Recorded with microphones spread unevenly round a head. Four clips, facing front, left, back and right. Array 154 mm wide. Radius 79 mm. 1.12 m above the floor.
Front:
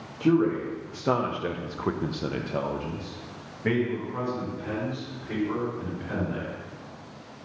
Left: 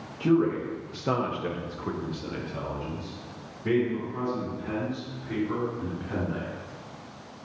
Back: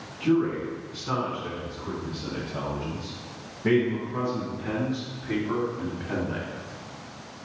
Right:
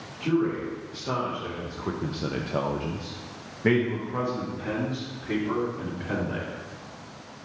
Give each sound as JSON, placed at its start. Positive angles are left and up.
{"t": 0.2, "sound": "a man speaking", "azimuth_deg": 45, "distance_m": 1.5}